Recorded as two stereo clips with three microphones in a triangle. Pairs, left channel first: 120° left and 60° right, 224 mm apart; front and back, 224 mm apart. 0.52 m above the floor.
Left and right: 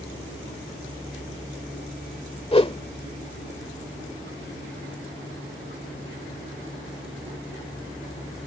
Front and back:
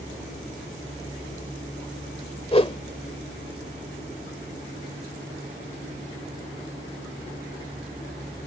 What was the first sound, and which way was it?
A whoosh, 60° left.